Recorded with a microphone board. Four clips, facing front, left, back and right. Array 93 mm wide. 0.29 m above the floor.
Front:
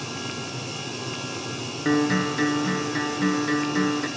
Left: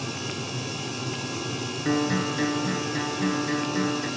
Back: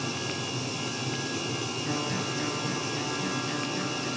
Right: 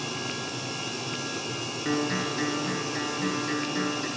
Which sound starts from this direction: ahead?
A guitar, at 1.9 s.